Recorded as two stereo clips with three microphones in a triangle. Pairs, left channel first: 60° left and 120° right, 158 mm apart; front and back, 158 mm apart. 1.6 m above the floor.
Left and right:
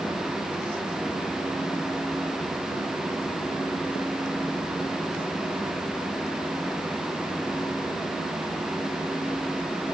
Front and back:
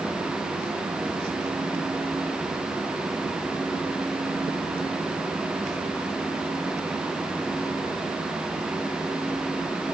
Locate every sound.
Only background noise.